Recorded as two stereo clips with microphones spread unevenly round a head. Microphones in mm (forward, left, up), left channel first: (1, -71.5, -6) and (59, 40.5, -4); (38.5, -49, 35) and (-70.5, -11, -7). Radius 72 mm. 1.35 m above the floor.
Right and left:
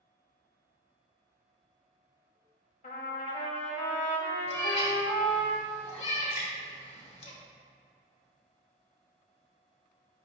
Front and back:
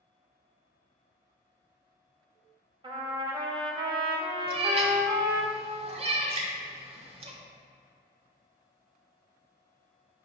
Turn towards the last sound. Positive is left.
turn(degrees=-165)